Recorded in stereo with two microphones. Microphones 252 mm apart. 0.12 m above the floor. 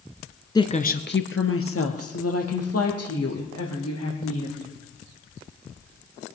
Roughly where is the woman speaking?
Centre.